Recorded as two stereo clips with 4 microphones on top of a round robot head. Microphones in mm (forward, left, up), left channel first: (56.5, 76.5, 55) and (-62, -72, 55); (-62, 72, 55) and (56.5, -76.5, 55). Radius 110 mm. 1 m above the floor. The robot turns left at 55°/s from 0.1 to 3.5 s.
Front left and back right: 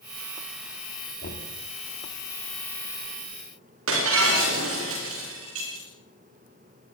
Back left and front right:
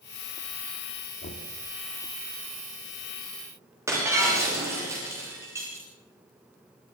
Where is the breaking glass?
125° right, 9 m.